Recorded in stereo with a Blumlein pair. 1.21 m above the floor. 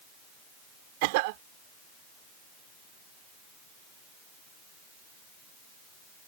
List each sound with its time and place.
1.0 s a cough: 45° right